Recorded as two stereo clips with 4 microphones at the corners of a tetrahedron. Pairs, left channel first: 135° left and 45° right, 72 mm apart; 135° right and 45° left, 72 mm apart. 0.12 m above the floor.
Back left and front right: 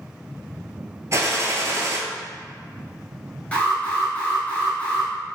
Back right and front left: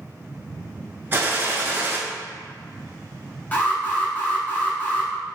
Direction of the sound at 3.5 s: 170° right.